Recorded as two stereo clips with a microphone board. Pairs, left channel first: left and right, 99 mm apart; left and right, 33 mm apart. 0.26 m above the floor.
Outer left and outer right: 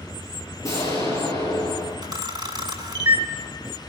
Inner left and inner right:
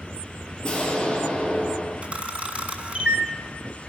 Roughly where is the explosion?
Left.